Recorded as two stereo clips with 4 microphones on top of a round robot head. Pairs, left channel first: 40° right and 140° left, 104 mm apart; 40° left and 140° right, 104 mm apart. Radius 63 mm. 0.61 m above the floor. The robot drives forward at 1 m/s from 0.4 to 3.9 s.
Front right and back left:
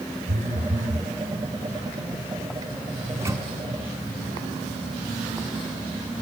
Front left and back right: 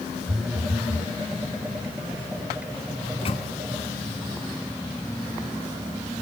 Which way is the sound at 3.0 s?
70° left.